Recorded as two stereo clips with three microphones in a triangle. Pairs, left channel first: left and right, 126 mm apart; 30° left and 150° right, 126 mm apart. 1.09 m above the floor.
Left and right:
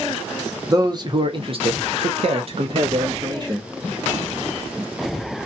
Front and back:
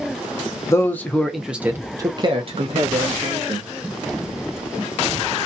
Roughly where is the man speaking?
Ahead right.